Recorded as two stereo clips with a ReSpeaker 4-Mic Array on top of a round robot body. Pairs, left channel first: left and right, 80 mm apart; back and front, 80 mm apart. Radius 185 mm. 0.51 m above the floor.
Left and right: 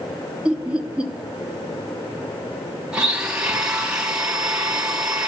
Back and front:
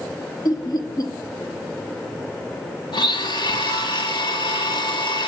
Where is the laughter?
165° right, 1.9 m.